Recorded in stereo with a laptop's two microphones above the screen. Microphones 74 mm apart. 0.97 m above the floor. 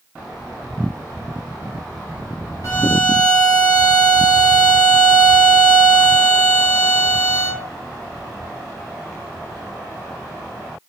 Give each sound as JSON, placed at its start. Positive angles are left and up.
{"t": 2.6, "sound": "a violin", "side_deg": 50, "distance_m": 1.5}